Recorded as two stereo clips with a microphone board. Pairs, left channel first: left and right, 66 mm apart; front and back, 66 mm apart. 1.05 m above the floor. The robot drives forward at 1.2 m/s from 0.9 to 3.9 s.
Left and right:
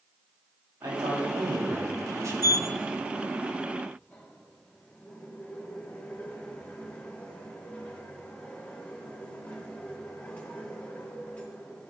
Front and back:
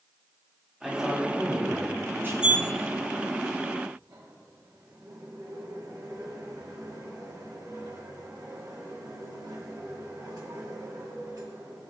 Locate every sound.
0.8 s a man speaking: 90° right, 2.5 m; by 2.7 s 135° right, 3.5 m
2.4 s a sliding door: 105° left, 0.8 m; by 11.9 s 160° left, 2 m